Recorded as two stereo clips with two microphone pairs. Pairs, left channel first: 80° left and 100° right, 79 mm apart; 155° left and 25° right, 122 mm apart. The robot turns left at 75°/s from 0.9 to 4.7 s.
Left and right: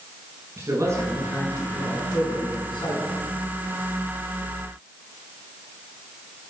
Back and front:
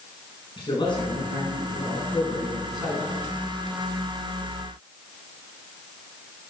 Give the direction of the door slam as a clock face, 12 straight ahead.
I don't hear a door slam.